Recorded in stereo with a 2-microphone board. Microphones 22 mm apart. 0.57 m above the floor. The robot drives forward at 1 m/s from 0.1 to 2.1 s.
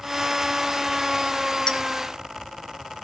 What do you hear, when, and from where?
1.7 s a clink: 40° left (ahead or behind), 1.3 m; by 1.8 s 45° left (ahead or behind), 1.2 m